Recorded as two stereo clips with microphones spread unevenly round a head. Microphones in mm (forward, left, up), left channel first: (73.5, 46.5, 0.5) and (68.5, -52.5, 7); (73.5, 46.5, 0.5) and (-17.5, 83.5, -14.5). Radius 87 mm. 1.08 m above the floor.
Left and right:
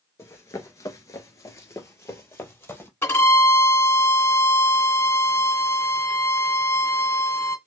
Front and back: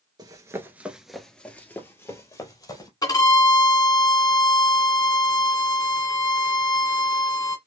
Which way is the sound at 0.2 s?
140° left.